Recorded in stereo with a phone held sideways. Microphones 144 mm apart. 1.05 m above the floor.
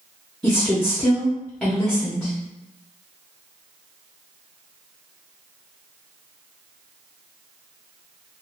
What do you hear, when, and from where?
0.4 s a woman speaking: 5° left (ahead or behind), 1.0 m